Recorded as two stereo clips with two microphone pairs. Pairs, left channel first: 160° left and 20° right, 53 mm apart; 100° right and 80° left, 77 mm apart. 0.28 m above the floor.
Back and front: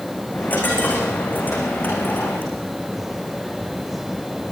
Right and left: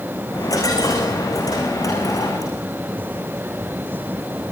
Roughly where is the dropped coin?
Behind right.